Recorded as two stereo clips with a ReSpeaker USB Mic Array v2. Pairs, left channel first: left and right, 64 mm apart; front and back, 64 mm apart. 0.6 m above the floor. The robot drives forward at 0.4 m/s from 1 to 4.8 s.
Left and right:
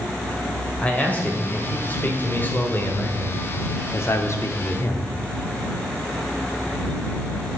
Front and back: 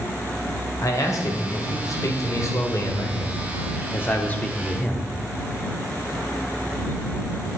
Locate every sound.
0.8 s a man speaking: 25° left, 2 m; by 5.1 s 70° left, 1.0 m